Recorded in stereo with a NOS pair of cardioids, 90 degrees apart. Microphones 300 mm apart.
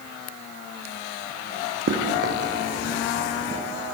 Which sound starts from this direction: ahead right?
Running footsteps, at 1.9 s.